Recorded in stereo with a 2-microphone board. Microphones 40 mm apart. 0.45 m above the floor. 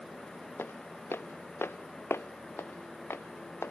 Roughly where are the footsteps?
Left.